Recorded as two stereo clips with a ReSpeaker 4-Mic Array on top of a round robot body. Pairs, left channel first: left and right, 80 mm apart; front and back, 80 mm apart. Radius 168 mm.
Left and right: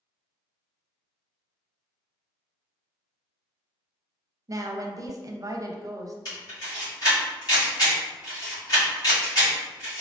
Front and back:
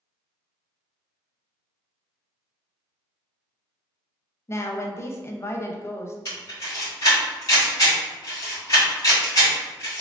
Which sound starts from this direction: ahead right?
A woman speaking, at 4.5 s.